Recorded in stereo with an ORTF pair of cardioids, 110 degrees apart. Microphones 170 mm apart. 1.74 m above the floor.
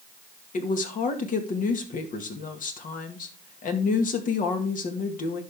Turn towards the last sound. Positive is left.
turn(degrees=55)